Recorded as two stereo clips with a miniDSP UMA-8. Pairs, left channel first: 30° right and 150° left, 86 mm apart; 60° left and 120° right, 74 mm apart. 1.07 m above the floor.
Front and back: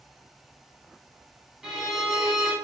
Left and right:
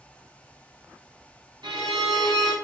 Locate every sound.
1.6 s a violin: 130° right, 3.5 m